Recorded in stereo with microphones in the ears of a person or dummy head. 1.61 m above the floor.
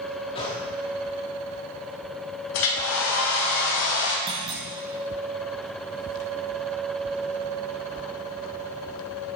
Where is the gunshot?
25° left (ahead or behind), 2 m.